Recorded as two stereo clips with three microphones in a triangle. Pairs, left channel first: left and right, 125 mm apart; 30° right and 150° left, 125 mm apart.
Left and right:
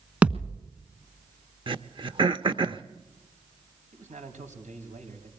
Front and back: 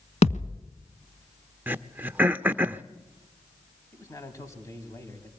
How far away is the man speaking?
About 4.5 m.